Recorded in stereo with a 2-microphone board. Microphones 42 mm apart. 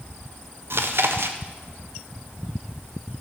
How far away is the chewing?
About 0.9 m.